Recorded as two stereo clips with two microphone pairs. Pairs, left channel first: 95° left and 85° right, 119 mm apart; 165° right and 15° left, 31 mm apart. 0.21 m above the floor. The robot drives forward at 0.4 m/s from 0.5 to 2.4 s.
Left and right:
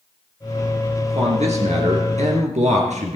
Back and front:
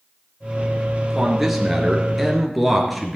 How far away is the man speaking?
About 3.5 m.